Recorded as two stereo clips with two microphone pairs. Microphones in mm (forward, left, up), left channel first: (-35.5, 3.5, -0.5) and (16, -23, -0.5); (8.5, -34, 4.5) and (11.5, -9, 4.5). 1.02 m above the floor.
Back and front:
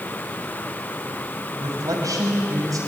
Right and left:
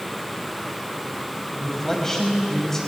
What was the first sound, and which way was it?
A man speaking, 25° right.